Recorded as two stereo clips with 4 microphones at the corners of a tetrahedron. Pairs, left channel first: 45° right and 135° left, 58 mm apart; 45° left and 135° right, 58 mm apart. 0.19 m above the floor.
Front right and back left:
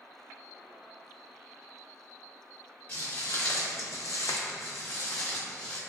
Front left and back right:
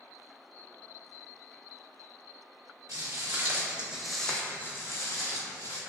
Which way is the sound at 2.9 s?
95° right.